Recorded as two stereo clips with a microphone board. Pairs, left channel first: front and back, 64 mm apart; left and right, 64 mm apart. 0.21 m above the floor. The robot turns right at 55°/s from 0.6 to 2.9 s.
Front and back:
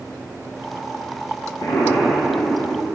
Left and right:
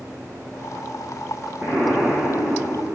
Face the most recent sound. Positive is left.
turn(degrees=85)